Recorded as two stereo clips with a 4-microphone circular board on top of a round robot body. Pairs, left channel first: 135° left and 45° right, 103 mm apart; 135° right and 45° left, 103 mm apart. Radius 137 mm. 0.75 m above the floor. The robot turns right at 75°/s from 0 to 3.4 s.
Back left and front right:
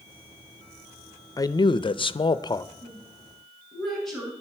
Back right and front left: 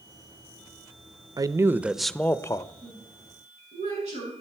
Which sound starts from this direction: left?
A man speaking, at 1.4 s.